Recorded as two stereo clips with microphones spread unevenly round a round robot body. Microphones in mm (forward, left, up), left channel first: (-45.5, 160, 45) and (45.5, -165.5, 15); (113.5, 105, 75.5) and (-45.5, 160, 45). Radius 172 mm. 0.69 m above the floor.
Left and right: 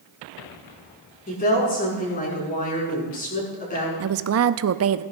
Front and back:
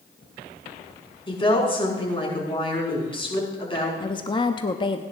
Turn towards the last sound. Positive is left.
turn(degrees=-85)